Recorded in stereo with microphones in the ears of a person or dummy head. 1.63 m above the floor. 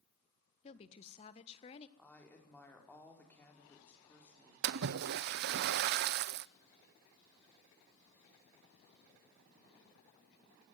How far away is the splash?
About 0.6 m.